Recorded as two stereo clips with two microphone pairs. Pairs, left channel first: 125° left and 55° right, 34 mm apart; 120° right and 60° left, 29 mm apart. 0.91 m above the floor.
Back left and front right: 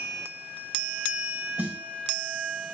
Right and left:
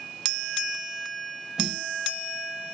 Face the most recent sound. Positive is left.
turn(degrees=-10)